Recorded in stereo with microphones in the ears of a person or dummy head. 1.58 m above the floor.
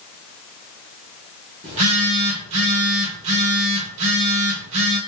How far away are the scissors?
No scissors in this recording.